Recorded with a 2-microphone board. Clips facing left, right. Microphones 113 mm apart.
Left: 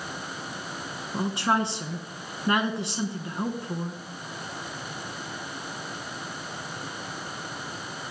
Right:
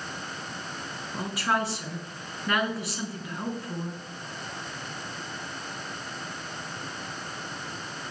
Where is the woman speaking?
25° left (ahead or behind), 1.6 m.